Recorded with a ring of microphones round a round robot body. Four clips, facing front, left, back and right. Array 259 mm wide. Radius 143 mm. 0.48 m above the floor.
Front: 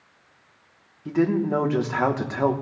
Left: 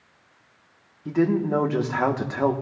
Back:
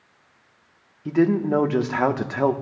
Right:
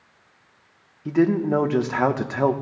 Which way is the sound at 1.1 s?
145° right.